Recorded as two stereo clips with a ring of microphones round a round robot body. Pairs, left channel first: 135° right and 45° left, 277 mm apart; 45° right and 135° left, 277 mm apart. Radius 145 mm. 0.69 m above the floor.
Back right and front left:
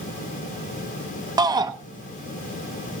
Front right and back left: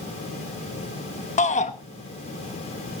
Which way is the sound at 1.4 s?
15° right.